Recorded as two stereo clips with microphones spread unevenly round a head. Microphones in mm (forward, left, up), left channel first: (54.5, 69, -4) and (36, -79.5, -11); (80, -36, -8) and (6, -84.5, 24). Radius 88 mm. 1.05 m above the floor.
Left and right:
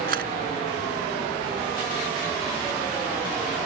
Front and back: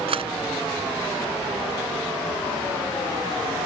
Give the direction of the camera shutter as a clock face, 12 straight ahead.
5 o'clock.